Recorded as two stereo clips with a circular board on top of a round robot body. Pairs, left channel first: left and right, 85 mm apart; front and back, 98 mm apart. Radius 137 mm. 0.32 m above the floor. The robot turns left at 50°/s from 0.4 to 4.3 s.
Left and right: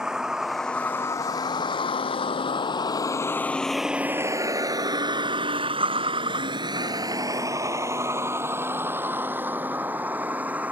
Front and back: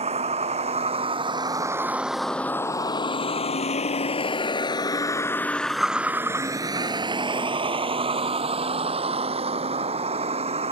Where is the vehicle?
175° right; by 10.7 s 165° right.